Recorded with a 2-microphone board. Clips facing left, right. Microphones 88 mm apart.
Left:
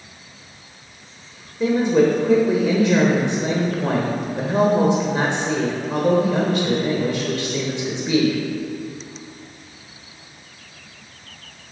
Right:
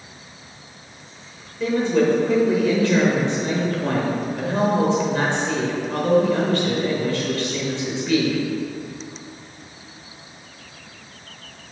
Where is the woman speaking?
20° left (ahead or behind), 1.2 m.